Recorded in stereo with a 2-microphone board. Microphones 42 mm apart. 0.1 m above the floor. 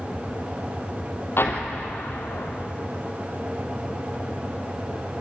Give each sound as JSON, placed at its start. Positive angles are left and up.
{"t": 1.4, "sound": "an explosion", "side_deg": 65, "distance_m": 2.5}